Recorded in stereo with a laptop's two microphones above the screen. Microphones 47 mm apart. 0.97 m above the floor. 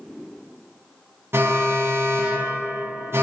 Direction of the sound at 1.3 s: 65° right (ahead or behind).